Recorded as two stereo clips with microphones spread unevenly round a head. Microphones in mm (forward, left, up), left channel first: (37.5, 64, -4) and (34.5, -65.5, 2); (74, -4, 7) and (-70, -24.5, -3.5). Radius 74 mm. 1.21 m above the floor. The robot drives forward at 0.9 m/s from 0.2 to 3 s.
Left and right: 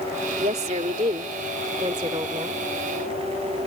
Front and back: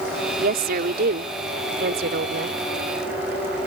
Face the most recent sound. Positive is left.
turn(degrees=-160)